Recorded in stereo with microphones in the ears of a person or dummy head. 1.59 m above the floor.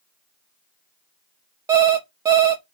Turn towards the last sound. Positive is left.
turn(degrees=-20)  # may be behind; listen again after turning